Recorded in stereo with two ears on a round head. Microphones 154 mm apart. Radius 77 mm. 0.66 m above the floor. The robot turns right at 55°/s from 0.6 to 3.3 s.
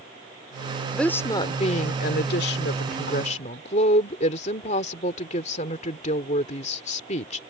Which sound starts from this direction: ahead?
A woman speaking, at 0.9 s.